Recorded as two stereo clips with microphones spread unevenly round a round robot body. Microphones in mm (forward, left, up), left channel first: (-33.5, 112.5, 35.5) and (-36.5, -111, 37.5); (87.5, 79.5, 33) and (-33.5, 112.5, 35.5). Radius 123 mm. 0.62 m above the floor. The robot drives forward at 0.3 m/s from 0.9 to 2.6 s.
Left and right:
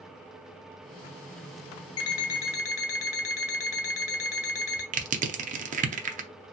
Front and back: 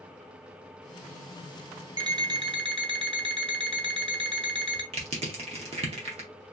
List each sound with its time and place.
2.0 s an alarm clock: 105° left, 0.9 m; by 4.8 s 115° left, 1.0 m
4.9 s crushing: 145° right, 0.6 m